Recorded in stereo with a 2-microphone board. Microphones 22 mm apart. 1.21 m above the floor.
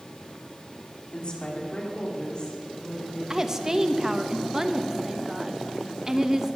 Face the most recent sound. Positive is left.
turn(degrees=-20)  # may be behind; listen again after turning